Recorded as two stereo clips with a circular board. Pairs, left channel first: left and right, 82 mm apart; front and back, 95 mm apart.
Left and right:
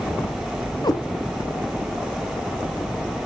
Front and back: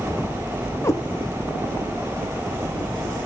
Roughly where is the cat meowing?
Ahead left.